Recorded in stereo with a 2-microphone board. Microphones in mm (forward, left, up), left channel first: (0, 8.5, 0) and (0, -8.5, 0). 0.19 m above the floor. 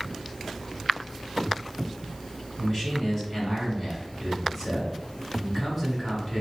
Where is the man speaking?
10° left (ahead or behind), 1.5 m.